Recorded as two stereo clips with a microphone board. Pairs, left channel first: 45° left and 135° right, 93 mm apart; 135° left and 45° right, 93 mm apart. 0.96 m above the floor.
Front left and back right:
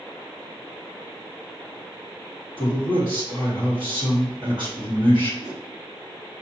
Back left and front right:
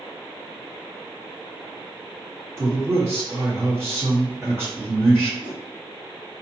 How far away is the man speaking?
About 1.6 m.